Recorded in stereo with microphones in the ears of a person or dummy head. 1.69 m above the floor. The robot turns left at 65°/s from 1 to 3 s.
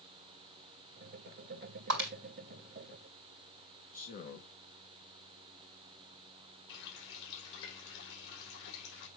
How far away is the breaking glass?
About 3.5 m.